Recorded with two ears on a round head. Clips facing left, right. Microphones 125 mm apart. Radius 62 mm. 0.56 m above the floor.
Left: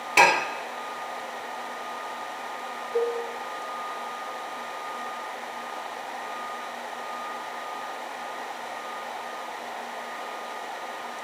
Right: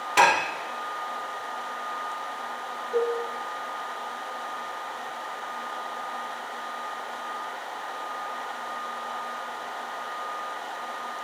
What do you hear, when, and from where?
0.2 s dishes clattering: 15° left (ahead or behind), 1.1 m
2.9 s a cowbell: 50° right (ahead or behind), 5 m